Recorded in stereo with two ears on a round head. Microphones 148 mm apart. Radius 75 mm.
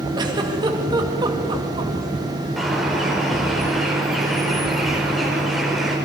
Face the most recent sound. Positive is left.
turn(degrees=0)  # may be behind; listen again after turning